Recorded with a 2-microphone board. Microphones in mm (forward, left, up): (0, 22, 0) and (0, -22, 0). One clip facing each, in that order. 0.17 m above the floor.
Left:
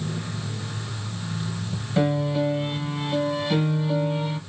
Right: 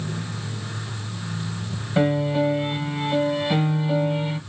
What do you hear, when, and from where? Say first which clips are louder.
2.0 s a piano: right 2 dB; 20° right (ahead or behind), 0.8 m